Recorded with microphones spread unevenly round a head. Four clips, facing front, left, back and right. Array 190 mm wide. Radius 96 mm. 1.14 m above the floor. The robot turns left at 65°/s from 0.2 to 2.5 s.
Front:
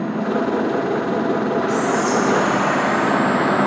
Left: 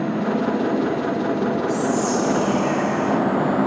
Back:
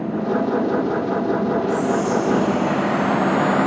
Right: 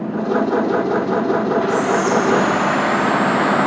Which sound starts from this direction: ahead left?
Whispering, at 1.7 s.